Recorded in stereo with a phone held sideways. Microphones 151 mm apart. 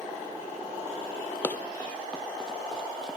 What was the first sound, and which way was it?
Running footsteps, 15° left (ahead or behind).